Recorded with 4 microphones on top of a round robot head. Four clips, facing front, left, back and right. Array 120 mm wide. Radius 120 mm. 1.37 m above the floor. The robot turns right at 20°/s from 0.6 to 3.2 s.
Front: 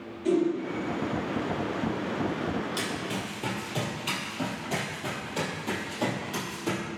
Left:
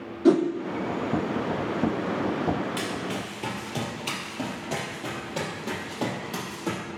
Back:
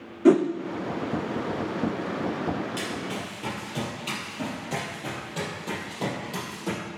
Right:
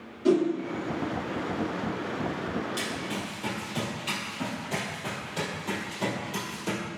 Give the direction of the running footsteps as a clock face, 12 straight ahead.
10 o'clock.